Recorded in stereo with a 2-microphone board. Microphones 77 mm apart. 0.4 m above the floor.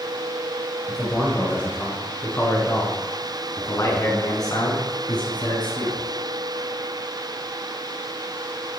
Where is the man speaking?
10° left (ahead or behind), 6 m; by 6.0 s 75° left (ahead or behind), 4.5 m.